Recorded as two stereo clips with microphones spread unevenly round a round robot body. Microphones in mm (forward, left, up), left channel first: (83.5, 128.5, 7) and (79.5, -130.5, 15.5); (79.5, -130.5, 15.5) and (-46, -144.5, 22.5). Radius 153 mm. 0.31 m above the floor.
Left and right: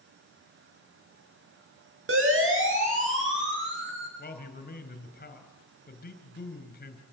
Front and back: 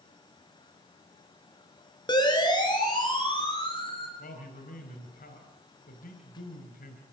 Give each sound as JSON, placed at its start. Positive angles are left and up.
{"t": 2.1, "sound": "a siren", "azimuth_deg": -50, "distance_m": 7.0}
{"t": 4.2, "sound": "a man speaking", "azimuth_deg": 35, "distance_m": 4.0}